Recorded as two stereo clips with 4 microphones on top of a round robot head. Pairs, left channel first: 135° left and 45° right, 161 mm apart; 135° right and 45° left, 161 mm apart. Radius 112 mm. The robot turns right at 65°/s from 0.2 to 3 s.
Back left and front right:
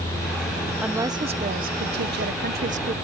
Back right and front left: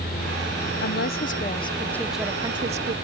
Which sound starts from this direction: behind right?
A woman speaking, at 0.8 s.